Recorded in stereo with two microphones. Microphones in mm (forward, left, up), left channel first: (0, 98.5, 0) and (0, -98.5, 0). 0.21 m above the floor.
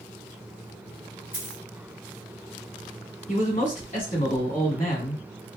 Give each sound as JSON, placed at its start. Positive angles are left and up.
{"t": 1.3, "sound": "a dropped coin", "side_deg": 55, "distance_m": 1.6}
{"t": 3.3, "sound": "a man speaking", "side_deg": 45, "distance_m": 1.3}